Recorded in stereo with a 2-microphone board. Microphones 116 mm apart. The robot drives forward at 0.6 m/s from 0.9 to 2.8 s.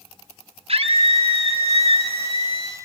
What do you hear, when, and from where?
0.7 s a scream: 70° right (ahead or behind), 3 m; by 2.8 s 60° right (ahead or behind), 3 m